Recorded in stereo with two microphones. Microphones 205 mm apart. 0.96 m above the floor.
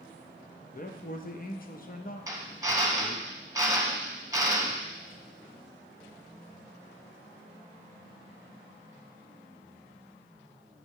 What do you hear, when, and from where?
0.7 s a man speaking: 45° left (ahead or behind), 0.7 m
2.3 s a drill: 15° right (ahead or behind), 0.9 m